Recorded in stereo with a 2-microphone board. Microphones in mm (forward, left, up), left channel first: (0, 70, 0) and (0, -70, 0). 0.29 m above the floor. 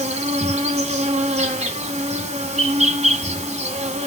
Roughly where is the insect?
Right.